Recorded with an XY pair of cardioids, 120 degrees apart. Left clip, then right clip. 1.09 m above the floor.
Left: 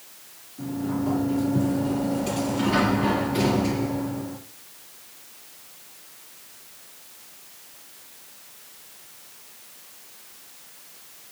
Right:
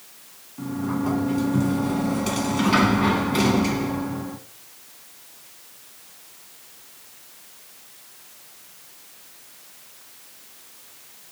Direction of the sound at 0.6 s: 60° right.